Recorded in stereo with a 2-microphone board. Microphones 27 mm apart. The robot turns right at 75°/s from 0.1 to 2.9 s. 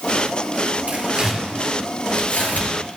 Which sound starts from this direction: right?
Tearing paper, at 0.9 s.